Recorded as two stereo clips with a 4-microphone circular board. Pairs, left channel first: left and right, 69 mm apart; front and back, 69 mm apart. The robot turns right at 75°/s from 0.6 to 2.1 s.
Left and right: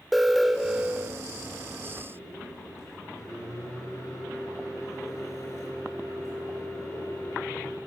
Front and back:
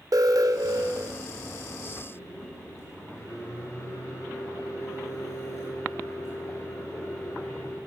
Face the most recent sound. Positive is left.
turn(degrees=45)